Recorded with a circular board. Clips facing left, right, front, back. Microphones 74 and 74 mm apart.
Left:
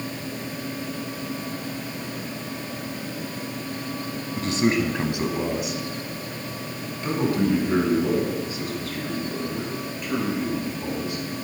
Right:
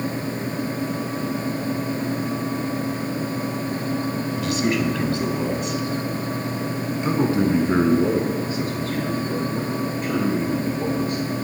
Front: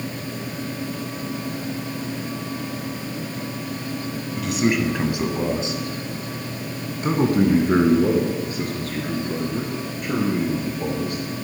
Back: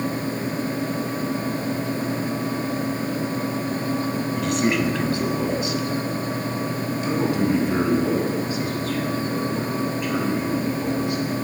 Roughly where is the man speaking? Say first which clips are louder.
Left 2 dB, front 2 dB; left.